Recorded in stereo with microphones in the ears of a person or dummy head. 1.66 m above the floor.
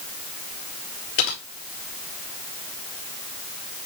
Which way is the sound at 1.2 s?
75° left (ahead or behind).